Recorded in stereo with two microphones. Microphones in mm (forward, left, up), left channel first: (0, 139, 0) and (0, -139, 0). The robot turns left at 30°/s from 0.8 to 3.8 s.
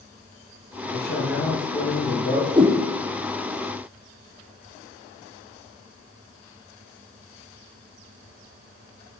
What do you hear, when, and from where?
0.9 s a man speaking: 65° left, 1.6 m; by 2.5 s 20° left, 1.6 m
2.5 s a whoosh: 15° right (ahead or behind), 0.8 m; by 2.8 s 25° right (ahead or behind), 0.8 m